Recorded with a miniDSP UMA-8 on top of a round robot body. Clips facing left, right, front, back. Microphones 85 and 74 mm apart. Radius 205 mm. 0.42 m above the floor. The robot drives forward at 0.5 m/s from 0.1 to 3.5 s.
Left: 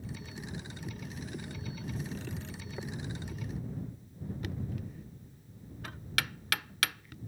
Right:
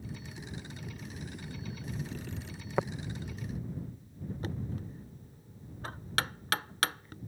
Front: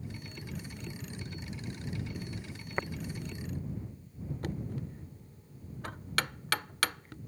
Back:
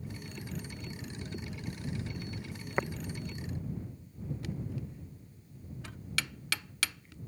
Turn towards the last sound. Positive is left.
turn(degrees=-40)